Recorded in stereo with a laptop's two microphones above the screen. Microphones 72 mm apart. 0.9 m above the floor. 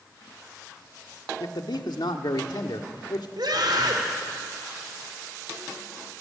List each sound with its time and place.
1.4 s a man speaking: 80° left, 1.8 m
3.4 s a scream: 75° right (ahead or behind), 3.5 m